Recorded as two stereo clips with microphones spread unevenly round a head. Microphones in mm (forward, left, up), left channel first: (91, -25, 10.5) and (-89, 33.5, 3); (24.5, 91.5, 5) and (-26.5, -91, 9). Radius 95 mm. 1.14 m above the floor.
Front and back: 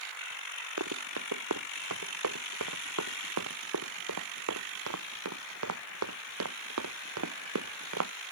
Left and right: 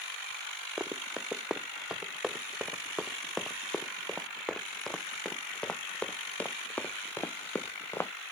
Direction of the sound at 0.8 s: 170° left.